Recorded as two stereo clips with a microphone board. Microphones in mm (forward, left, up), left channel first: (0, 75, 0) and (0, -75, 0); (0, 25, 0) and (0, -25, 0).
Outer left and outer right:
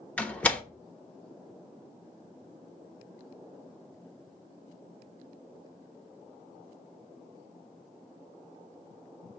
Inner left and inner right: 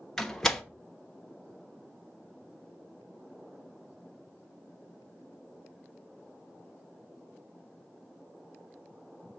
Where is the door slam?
10° left (ahead or behind), 1.0 m.